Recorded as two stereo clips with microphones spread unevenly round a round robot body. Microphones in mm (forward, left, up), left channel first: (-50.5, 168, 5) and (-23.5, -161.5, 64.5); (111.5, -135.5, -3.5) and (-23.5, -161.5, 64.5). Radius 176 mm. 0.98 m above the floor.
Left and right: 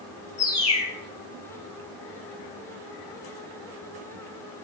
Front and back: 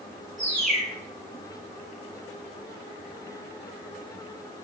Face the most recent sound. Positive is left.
turn(degrees=175)